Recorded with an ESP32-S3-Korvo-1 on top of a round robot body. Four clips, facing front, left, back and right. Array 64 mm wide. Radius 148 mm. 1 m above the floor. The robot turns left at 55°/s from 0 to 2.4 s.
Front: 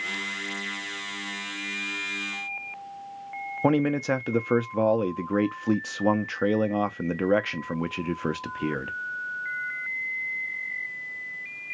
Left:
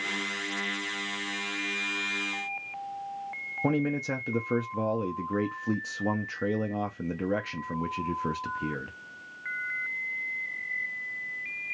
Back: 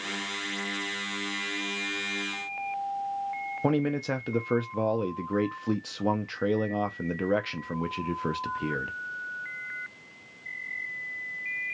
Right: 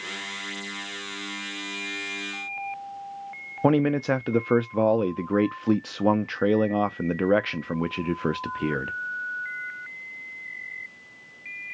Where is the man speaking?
65° right, 0.6 m.